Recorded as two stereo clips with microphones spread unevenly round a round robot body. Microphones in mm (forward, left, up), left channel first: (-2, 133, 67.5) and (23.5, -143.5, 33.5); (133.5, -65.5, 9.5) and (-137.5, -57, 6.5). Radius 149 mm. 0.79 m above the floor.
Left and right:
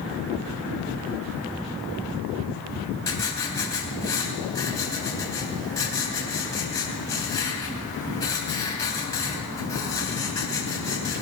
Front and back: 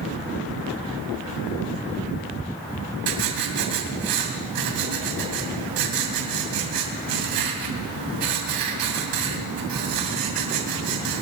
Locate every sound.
3.1 s writing: 175° left, 3 m